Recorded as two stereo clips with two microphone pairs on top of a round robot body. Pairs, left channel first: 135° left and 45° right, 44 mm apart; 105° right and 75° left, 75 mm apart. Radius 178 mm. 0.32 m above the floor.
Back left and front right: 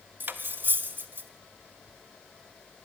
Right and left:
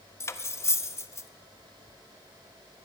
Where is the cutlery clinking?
70° right, 0.6 m.